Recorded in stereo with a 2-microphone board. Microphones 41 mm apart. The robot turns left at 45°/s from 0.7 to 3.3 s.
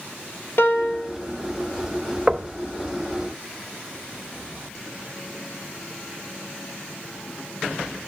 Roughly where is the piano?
Left.